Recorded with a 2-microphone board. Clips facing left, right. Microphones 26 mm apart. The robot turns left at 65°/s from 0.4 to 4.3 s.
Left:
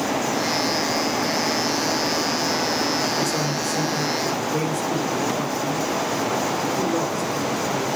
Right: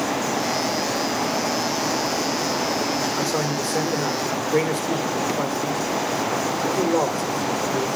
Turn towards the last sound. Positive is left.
turn(degrees=-110)